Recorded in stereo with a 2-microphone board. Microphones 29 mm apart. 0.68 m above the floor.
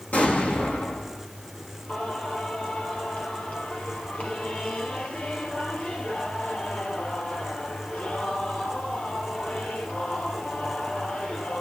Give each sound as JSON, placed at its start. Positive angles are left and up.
{"t": 0.1, "sound": "an explosion", "side_deg": 75, "distance_m": 6.5}
{"t": 1.9, "sound": "singing", "side_deg": 55, "distance_m": 5.5}